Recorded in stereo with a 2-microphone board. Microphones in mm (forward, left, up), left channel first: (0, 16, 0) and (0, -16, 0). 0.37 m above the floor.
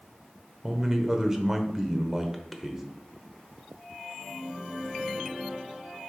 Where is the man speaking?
15° right (ahead or behind), 0.9 m.